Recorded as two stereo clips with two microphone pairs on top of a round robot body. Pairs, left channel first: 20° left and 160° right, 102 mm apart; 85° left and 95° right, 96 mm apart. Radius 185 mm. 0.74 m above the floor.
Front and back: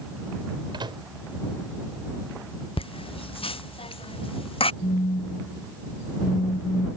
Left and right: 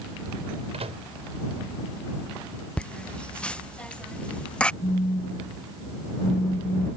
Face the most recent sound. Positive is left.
turn(degrees=25)